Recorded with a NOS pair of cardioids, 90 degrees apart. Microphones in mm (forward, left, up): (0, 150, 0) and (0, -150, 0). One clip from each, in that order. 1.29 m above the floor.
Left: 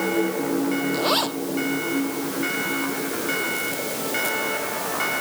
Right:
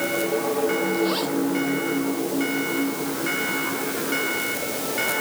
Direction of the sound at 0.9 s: 60° left.